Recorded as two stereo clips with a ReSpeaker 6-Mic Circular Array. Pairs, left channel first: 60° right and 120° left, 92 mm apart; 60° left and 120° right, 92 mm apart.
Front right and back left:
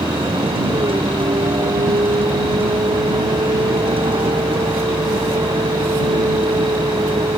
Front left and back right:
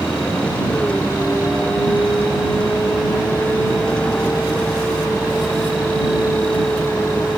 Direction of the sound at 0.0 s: 140° left.